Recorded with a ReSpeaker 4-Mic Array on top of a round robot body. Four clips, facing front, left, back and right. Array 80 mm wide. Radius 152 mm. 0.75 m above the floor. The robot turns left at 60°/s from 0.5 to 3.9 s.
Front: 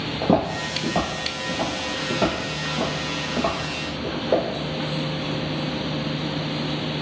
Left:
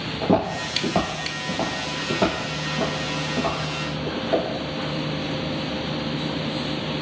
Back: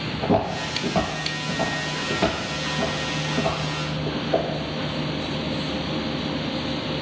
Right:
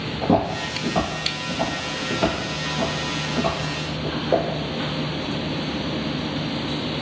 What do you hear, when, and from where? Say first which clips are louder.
0.2 s footsteps: right 1 dB, front 1 dB; 20° left, 0.8 m; by 4.5 s 35° right, 2 m